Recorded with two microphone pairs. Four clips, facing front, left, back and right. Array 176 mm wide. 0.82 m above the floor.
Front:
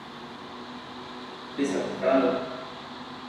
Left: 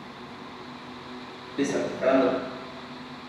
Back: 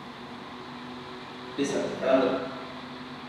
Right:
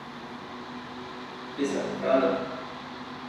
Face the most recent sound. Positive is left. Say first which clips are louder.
# left 3 dB, front 1 dB
turn(degrees=85)